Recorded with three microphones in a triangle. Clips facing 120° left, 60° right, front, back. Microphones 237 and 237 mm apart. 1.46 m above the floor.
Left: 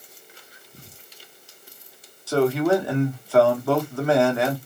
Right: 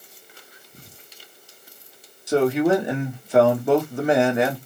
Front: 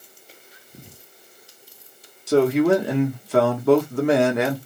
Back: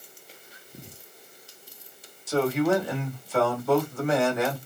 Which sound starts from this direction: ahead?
A man speaking, at 2.3 s.